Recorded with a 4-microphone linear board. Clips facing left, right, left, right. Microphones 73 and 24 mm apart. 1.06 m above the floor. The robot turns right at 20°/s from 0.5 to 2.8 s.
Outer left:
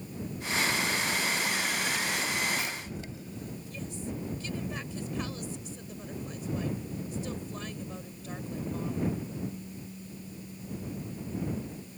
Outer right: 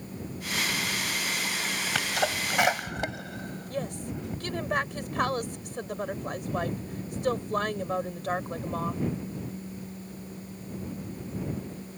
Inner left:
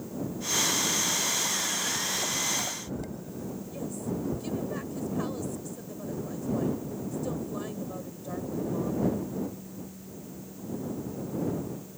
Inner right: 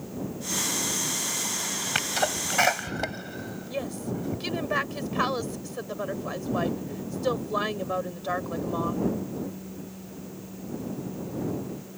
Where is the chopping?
I don't hear chopping.